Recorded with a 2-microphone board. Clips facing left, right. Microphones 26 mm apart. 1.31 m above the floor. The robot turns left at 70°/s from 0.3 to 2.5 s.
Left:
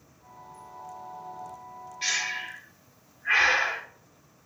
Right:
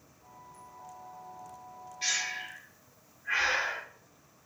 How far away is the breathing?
About 1.1 m.